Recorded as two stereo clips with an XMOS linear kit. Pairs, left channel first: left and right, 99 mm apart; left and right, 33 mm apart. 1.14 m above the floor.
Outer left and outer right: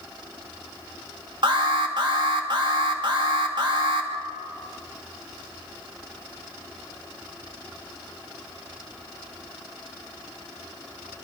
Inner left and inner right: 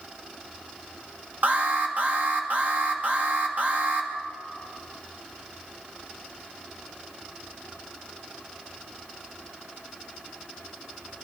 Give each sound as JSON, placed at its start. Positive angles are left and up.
{"t": 1.4, "sound": "an alarm", "side_deg": -55, "distance_m": 2.0}